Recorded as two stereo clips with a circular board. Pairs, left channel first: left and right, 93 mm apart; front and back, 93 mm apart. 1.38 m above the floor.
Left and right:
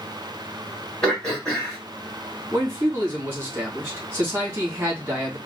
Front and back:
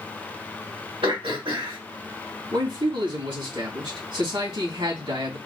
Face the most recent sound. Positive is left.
turn(degrees=-155)